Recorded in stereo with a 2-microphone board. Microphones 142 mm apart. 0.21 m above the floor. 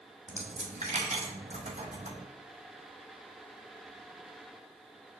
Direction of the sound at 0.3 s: 55° right (ahead or behind).